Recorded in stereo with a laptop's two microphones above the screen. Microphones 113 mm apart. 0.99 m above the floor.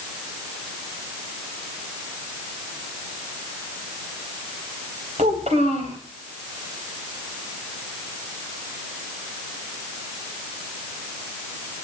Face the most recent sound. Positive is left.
turn(degrees=-75)  # may be behind; listen again after turning